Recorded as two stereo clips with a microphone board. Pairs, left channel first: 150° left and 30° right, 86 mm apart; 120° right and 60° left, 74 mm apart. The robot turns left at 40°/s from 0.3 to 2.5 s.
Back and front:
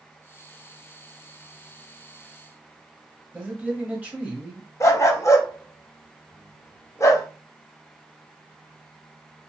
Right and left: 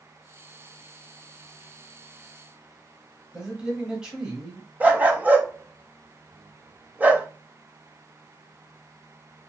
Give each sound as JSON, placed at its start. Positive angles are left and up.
{"t": 3.3, "sound": "a man speaking", "azimuth_deg": 5, "distance_m": 1.2}
{"t": 4.8, "sound": "a dog barking", "azimuth_deg": 120, "distance_m": 0.6}